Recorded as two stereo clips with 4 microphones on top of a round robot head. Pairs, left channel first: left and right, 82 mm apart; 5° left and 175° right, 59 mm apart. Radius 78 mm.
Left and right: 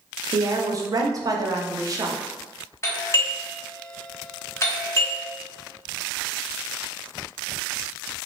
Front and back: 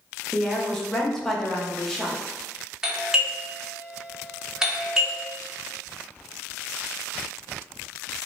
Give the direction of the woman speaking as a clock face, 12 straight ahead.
3 o'clock.